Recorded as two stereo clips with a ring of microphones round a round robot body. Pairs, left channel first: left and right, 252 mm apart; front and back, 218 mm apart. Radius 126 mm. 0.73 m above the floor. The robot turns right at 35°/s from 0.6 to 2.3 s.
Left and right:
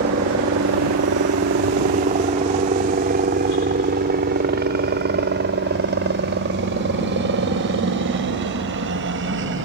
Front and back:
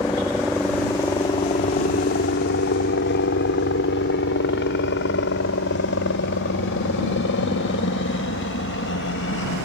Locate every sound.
0.0 s a helicopter: 80° right; by 9.7 s 45° right